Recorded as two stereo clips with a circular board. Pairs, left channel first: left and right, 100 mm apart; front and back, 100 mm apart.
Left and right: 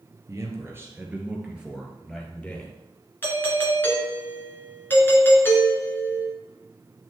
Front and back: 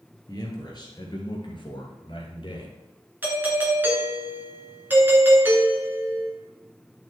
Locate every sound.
0.3 s a man speaking: 40° right, 2.5 m; by 2.8 s 15° left, 2.5 m
3.2 s a doorbell: 130° left, 2 m